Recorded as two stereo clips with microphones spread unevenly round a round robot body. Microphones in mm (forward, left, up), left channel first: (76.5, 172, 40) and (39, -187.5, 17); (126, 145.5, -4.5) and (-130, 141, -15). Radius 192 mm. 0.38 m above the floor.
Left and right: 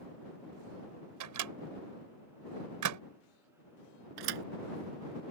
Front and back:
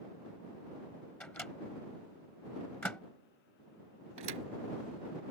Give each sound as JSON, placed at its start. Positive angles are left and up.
{"t": 1.2, "sound": "a microwave", "azimuth_deg": -85}
{"t": 4.2, "sound": "a thud", "azimuth_deg": -130}